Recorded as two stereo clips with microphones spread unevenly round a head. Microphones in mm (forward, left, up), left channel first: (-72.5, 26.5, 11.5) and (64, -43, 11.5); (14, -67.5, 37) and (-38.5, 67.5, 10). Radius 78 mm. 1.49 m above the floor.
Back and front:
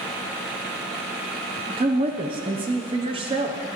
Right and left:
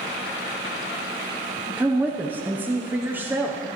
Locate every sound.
1.8 s a woman speaking: 30° left, 0.7 m